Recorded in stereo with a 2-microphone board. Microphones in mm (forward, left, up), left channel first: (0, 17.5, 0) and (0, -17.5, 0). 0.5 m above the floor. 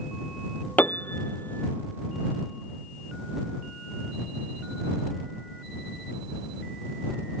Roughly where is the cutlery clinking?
No cutlery clinking in this recording.